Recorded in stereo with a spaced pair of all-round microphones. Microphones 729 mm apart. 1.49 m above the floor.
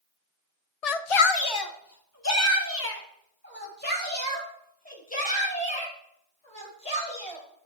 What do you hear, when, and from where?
0.8 s a shout: 60° left (ahead or behind), 0.6 m; by 7.4 s 10° left (ahead or behind), 6.5 m